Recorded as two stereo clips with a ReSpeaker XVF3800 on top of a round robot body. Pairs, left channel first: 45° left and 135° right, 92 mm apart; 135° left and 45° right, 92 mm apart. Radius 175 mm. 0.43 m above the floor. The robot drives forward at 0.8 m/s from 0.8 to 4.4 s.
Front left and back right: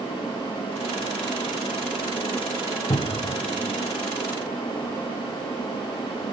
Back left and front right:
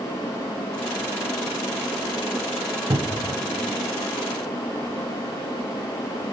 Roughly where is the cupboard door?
Ahead.